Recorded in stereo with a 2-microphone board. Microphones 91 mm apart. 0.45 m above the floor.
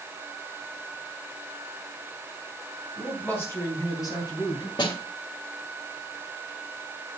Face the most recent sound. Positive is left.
turn(degrees=50)  # may be behind; listen again after turning